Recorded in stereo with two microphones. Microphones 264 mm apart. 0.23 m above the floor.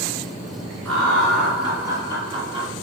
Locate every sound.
0.8 s laughter: 10° left (ahead or behind), 2.5 m; by 2.7 s 30° right (ahead or behind), 1.8 m